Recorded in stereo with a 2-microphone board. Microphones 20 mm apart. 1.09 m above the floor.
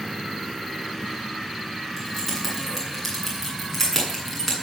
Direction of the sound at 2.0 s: Centre (ahead or behind).